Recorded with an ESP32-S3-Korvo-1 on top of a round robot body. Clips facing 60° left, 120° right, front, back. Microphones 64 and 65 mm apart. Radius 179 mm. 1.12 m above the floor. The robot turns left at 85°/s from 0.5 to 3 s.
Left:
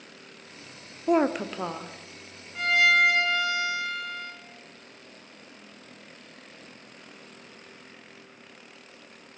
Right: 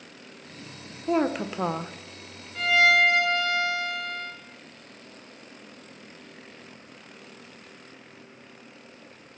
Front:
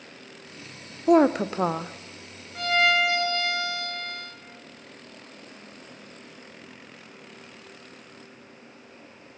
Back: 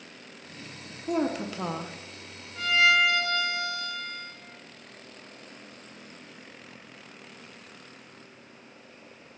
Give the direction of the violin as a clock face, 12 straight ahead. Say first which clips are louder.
Right 1 dB, even; 1 o'clock.